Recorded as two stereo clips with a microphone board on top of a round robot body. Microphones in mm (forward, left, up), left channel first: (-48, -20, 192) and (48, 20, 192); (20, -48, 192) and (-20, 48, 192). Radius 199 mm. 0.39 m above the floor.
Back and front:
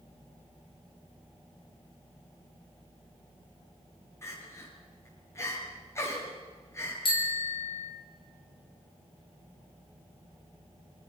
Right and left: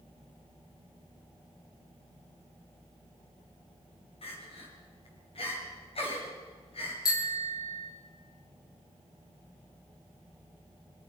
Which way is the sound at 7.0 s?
120° right.